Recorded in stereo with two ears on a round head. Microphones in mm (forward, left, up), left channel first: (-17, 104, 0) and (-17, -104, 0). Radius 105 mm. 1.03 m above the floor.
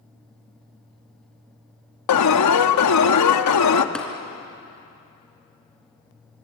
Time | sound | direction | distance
2.1 | an alarm | 85° left | 1.1 m
4.0 | tapping | 5° left (ahead or behind) | 2.5 m